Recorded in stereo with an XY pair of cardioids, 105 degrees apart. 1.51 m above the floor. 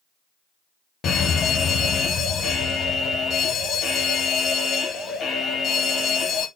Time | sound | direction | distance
1.0 | a fire alarm | 55° left | 2 m